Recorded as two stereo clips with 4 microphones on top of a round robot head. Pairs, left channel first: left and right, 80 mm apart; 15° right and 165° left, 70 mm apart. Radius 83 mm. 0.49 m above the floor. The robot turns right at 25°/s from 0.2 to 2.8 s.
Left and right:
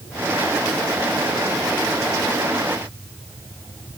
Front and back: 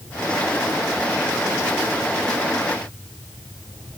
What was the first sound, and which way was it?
Only background noise.